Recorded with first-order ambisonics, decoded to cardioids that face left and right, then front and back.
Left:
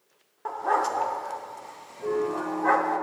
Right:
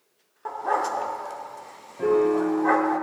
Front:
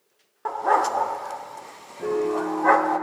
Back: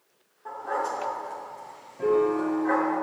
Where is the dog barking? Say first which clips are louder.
Even, front 8 dB; 5° left, 0.6 m.